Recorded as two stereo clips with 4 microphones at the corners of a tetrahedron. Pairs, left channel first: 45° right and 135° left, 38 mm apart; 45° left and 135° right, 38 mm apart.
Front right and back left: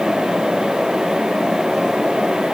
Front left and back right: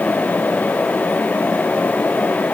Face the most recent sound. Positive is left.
No sound to turn to.